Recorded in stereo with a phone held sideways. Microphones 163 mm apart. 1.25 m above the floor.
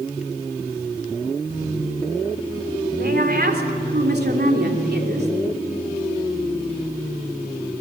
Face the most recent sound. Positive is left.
turn(degrees=-85)